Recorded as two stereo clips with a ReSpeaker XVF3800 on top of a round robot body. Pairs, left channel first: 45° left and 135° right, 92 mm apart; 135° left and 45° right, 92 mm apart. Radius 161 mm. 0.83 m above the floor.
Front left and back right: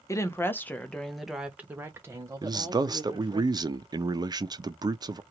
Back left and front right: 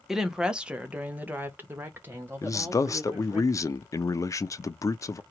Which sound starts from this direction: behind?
A man speaking, at 2.4 s.